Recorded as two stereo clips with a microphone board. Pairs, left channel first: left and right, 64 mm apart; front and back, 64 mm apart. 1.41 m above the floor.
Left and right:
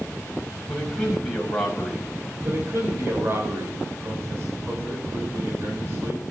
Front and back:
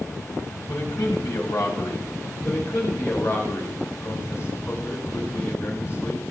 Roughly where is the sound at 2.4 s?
Ahead right.